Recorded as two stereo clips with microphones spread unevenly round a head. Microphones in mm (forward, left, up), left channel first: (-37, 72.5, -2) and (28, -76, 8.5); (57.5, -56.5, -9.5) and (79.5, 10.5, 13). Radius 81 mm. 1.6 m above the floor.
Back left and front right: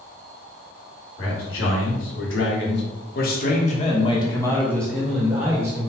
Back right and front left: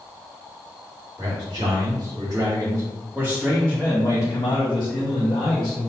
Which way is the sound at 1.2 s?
115° left.